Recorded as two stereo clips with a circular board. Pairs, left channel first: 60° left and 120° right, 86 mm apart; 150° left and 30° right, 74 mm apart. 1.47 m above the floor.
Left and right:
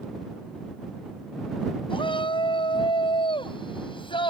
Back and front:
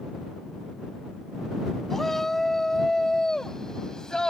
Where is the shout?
65° left; by 4.3 s 70° left.